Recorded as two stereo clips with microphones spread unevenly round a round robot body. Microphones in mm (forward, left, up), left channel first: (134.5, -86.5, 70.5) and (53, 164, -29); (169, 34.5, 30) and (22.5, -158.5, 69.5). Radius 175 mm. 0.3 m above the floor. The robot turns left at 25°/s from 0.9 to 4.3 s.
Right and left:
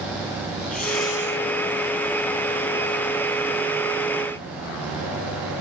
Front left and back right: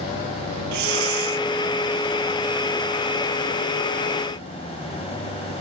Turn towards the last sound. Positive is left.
turn(degrees=135)